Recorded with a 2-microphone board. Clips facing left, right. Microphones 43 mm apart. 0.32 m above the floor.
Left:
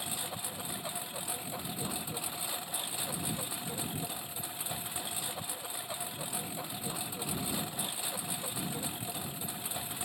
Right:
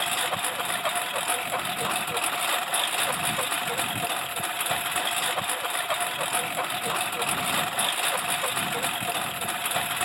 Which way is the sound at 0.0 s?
80° right.